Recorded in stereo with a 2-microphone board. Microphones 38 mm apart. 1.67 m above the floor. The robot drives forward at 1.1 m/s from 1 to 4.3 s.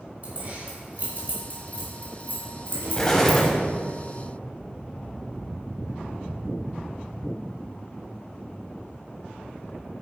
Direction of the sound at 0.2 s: 45° right (ahead or behind).